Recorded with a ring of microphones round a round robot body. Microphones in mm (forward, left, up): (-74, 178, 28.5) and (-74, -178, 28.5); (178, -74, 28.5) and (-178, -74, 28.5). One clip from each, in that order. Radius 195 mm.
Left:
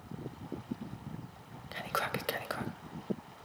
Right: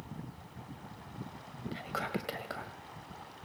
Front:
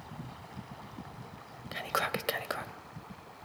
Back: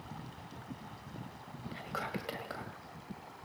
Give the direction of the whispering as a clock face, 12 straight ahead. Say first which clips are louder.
Left 3 dB, front 8 dB; 11 o'clock.